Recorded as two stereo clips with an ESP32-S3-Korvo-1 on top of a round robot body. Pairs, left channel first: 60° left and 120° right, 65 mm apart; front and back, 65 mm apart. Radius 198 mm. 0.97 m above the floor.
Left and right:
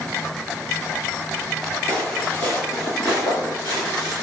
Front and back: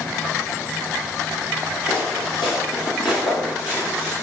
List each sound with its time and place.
1.9 s footsteps: 5° right, 1.9 m; by 4.2 s 90° left, 1.1 m